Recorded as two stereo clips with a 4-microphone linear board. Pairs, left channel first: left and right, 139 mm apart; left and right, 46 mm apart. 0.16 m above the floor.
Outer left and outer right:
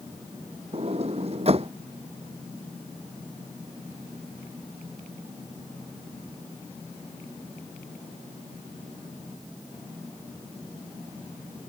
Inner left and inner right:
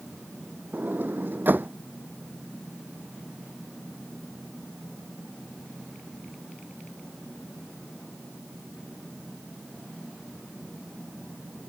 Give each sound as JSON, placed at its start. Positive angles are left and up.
{"t": 0.7, "sound": "a sliding door", "side_deg": -45}